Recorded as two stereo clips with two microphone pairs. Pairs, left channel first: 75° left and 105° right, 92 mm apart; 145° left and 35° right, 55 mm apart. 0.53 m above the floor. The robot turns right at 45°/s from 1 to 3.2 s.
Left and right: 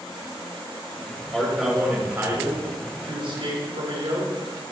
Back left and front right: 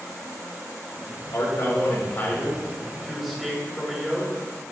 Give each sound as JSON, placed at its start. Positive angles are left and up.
{"t": 1.3, "sound": "a man speaking", "azimuth_deg": 150, "distance_m": 3.0}